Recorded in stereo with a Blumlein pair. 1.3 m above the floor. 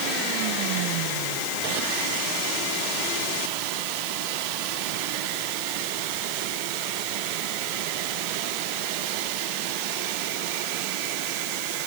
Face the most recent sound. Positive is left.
No sound to turn to.